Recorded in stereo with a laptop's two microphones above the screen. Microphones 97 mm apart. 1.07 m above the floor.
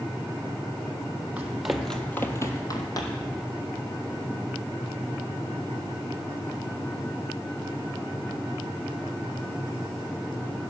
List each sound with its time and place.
1.4 s running footsteps: 15° right (ahead or behind), 1.6 m; by 3.3 s 45° left (ahead or behind), 2 m